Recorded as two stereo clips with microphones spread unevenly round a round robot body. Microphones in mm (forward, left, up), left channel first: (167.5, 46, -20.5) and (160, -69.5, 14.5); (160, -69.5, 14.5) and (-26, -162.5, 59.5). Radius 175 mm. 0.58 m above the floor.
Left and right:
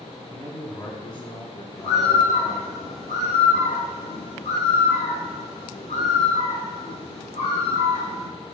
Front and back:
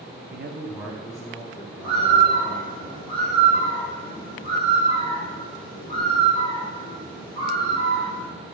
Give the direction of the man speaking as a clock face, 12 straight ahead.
5 o'clock.